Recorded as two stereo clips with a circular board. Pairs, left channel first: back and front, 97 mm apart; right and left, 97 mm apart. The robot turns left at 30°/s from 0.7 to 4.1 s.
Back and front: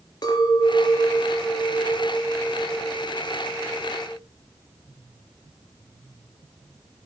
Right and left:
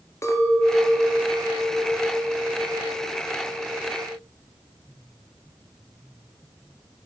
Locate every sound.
0.2 s a clink: 145° right, 1.9 m; by 4.2 s 115° left, 1.9 m